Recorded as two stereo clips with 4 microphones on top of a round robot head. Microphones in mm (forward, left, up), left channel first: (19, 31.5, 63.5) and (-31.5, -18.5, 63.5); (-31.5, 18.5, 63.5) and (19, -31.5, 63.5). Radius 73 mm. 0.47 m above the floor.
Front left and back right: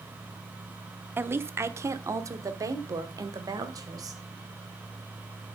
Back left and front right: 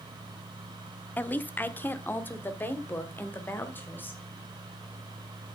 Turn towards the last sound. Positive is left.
turn(degrees=-165)